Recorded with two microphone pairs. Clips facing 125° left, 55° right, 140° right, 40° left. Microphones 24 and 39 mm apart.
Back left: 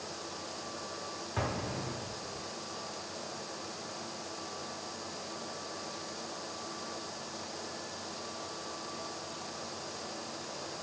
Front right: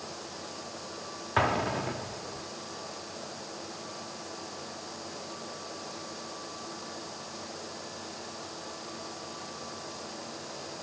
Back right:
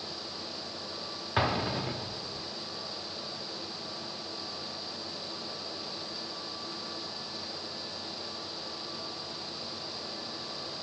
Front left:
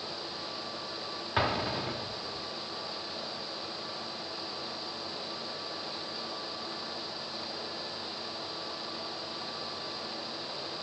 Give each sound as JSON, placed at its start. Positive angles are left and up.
{"t": 1.4, "sound": "an explosion", "azimuth_deg": -55, "distance_m": 0.9}